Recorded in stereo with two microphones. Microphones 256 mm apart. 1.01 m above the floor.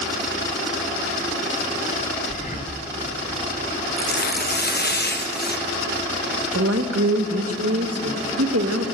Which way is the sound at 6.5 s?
70° right (ahead or behind).